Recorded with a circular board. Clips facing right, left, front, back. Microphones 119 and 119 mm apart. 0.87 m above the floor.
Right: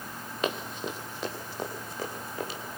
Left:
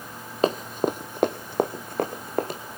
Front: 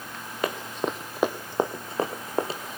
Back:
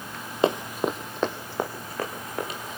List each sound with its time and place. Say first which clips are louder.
0.4 s running footsteps: left 9 dB, back 5 dB; 125° left, 1.2 m; by 2.6 s 55° left, 3 m